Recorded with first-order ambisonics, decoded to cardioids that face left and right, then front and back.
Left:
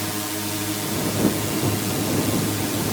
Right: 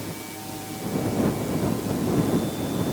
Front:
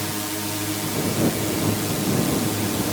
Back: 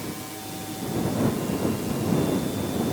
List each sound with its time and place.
0.0 s a drone: 50° left